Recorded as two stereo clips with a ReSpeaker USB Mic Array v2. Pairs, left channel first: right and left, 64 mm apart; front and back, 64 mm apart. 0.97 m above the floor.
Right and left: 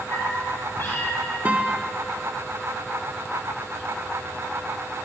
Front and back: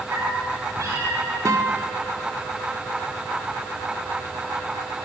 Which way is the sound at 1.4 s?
155° left.